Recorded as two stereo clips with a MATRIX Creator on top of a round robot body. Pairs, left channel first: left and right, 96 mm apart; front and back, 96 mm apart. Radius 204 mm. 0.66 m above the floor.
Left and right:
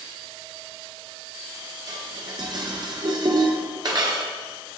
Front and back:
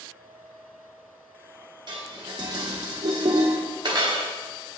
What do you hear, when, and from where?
1.9 s dishes clattering: 135° right, 1.1 m